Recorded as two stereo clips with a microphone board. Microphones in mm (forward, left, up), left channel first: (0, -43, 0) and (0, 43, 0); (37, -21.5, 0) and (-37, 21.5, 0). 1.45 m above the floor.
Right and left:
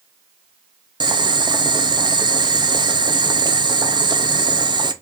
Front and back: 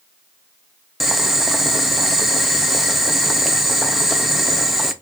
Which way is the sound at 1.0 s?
65° left.